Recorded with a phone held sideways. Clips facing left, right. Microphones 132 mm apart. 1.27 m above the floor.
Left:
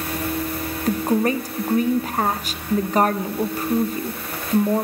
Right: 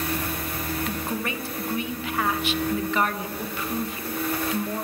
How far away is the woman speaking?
About 0.7 m.